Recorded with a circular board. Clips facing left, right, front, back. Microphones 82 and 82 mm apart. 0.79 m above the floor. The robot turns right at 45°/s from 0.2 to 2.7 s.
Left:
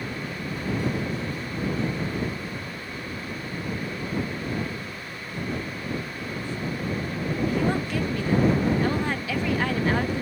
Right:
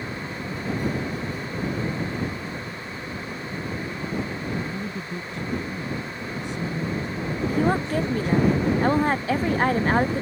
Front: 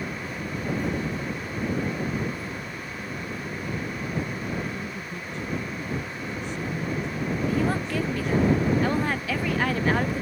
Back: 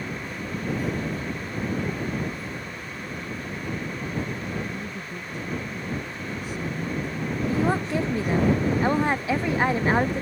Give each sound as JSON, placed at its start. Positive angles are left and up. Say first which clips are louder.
{"t": 4.5, "sound": "a woman speaking", "louder": "right 2 dB, even", "azimuth_deg": -95}
{"t": 7.5, "sound": "a woman speaking", "louder": "right 5 dB, back 4 dB", "azimuth_deg": -125}